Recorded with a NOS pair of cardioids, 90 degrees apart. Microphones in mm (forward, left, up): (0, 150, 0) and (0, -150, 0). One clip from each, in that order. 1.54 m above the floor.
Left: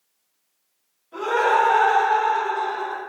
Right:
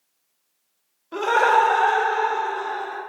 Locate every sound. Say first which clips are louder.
1.1 s laughter: right 2 dB; 55° right, 0.7 m; by 3.0 s 30° left, 1.3 m